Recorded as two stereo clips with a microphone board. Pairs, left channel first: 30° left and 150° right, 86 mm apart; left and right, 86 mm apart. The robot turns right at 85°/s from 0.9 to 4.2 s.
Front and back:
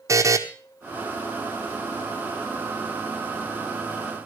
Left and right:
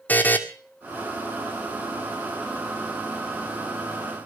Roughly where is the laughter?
No laughter in this recording.